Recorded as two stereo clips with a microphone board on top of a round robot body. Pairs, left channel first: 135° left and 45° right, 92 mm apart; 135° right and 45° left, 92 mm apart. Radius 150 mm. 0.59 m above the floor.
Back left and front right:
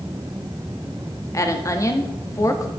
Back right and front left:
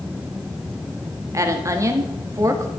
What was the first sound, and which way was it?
A woman speaking, 90° left.